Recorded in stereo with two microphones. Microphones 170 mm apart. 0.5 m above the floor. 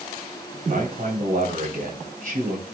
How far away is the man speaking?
About 3 m.